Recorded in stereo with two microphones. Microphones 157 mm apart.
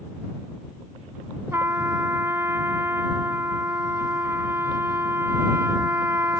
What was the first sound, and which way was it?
A trumpet, 15° right (ahead or behind).